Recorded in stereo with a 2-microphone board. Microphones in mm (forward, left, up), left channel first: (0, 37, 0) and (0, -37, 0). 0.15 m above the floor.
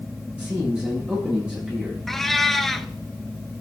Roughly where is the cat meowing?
Centre.